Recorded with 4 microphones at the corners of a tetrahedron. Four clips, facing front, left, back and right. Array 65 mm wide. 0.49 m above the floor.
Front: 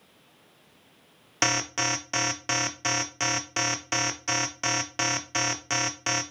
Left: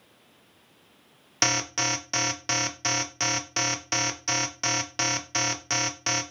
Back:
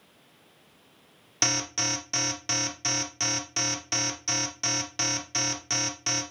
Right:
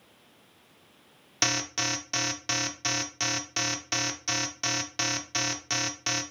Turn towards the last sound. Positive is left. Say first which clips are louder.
# left 3 dB, front 4 dB
turn(degrees=25)